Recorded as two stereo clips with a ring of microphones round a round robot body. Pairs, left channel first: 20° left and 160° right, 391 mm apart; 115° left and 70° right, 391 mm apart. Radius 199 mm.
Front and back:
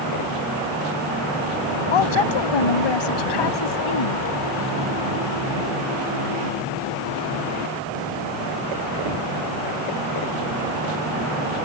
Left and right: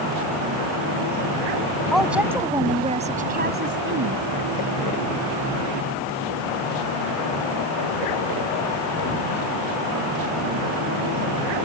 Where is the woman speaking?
25° left; by 4.3 s 10° right.